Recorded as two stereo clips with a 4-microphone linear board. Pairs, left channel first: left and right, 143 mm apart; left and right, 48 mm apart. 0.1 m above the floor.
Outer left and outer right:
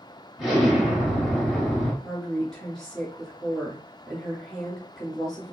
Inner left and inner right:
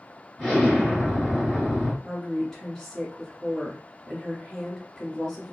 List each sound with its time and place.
0.4 s an explosion: centre (ahead or behind), 1.7 m
2.0 s a woman speaking: 5° left (ahead or behind), 1.7 m